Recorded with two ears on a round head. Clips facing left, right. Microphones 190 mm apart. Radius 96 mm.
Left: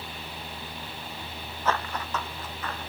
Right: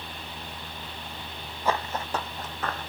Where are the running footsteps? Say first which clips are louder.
Right 1 dB; 10° right (ahead or behind), 1.3 m; by 2.9 s 45° right (ahead or behind), 2.5 m.